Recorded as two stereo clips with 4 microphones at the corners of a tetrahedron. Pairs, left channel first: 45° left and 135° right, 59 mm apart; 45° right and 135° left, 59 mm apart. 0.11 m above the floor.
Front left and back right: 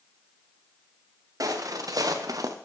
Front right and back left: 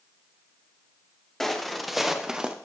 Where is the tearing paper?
I don't hear tearing paper.